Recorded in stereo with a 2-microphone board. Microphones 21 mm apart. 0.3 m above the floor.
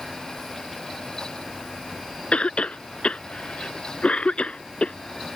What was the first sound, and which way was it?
A cough, 70° left (ahead or behind).